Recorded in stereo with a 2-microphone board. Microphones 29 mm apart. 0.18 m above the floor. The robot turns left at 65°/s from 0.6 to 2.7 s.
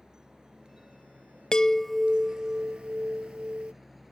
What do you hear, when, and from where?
0.0 s a helicopter: 25° right (ahead or behind); by 4.1 s 5° right (ahead or behind)
1.5 s a chime: 30° left; by 3.7 s 45° right